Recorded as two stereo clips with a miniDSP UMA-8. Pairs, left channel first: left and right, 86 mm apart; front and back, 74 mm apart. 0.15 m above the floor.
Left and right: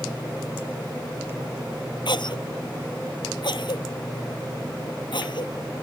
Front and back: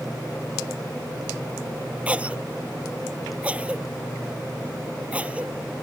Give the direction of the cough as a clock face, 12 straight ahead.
8 o'clock.